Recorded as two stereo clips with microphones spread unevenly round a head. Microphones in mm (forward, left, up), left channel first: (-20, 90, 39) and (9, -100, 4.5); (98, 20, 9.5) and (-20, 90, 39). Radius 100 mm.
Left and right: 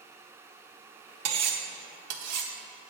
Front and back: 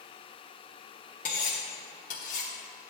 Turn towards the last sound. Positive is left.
turn(degrees=-85)